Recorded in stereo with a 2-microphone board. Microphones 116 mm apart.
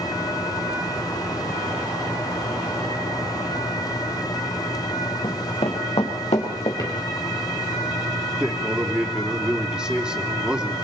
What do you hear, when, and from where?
5.2 s running footsteps: 50° left (ahead or behind), 4 m; by 6.7 s 65° left (ahead or behind), 6 m
6.8 s a drawer: 35° left (ahead or behind), 6 m
8.4 s a man speaking: 5° right (ahead or behind), 3 m